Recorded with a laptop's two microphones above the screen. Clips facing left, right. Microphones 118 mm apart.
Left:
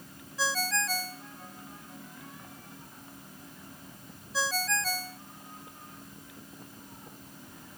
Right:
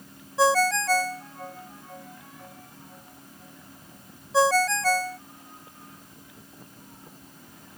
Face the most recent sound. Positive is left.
turn(degrees=-80)